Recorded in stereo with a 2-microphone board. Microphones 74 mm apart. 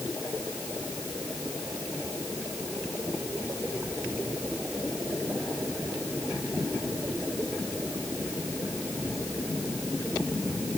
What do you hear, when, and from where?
Only background noise.